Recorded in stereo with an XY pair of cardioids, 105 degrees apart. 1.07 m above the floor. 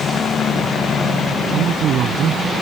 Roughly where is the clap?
No clap in this recording.